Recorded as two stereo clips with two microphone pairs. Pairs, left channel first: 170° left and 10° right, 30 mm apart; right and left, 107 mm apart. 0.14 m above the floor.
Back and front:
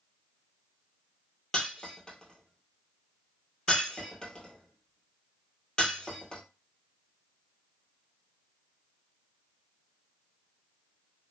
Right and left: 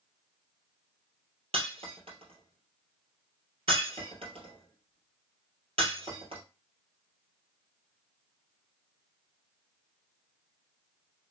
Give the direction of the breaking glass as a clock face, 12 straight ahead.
8 o'clock.